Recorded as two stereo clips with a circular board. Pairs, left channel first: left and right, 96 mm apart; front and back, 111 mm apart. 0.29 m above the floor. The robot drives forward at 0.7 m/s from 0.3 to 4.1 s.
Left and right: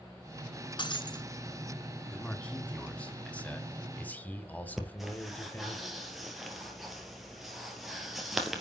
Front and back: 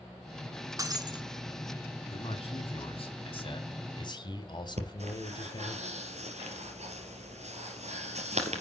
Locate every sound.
0.8 s breaking glass: 120° left, 1.4 m; by 1.2 s 130° left, 1.6 m
2.1 s a man speaking: 10° left, 3 m; by 5.8 s 25° left, 2.0 m
4.8 s breathing: 175° right, 2.5 m